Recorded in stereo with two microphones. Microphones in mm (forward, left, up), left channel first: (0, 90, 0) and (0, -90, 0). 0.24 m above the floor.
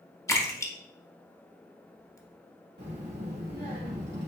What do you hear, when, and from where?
0.3 s a splash: 15° left (ahead or behind), 0.7 m
2.8 s a child speaking: 70° right (ahead or behind), 1.3 m